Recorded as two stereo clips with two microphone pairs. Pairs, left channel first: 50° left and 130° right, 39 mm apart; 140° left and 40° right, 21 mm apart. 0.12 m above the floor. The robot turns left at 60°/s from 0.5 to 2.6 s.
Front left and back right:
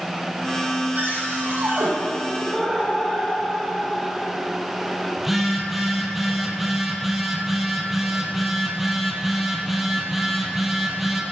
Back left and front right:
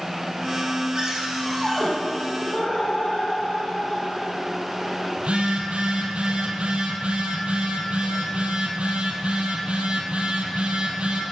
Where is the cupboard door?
90° right, 3.5 m; by 1.9 s 145° right, 3.5 m.